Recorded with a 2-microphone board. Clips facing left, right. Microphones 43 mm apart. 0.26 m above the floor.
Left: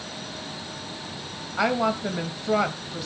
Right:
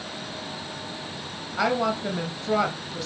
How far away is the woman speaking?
About 0.9 m.